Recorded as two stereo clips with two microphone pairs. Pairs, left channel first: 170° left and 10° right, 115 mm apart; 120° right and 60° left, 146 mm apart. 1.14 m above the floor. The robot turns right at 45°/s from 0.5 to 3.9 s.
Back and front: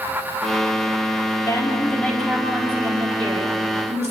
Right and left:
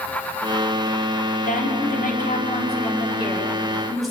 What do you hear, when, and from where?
1.4 s a woman speaking: 140° right, 6.5 m; by 4.1 s 25° right, 6.5 m